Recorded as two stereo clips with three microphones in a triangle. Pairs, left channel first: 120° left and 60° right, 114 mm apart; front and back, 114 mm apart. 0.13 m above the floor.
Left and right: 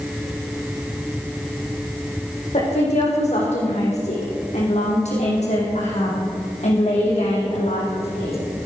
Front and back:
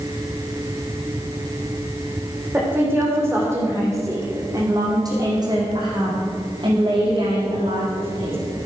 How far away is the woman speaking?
About 5.5 m.